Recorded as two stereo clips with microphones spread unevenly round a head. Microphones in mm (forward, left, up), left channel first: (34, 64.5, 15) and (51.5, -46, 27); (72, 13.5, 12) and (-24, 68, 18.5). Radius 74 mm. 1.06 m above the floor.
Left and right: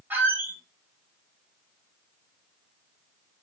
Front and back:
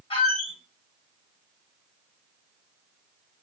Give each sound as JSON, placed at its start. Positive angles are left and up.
{"t": 0.1, "sound": "a squeak", "azimuth_deg": -15, "distance_m": 1.3}